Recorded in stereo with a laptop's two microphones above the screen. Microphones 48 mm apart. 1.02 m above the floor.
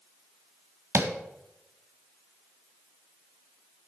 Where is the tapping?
55° right (ahead or behind), 1.4 m.